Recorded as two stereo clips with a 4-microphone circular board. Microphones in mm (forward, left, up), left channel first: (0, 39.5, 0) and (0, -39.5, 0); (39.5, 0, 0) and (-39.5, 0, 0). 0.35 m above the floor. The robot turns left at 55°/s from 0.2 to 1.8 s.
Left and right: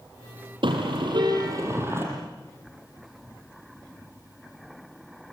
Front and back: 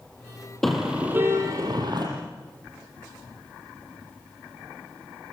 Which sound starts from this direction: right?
A car horn, at 0.6 s.